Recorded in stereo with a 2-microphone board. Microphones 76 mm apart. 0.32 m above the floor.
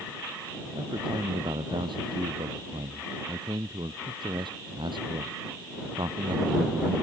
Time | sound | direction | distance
0.8 | a man speaking | 85° right | ?